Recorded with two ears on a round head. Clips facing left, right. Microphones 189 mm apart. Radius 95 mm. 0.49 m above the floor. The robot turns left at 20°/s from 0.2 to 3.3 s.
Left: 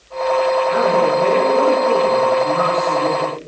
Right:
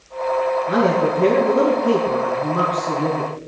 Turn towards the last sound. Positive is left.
turn(degrees=-125)